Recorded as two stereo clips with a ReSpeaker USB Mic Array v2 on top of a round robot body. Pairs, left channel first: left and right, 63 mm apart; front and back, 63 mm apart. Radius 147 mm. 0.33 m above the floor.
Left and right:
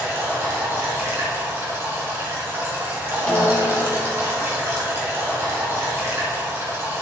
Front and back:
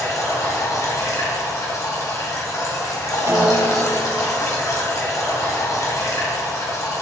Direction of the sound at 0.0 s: 35° right.